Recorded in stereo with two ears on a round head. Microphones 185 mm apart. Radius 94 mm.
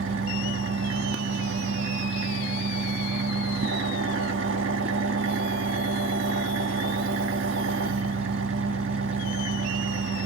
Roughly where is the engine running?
Right.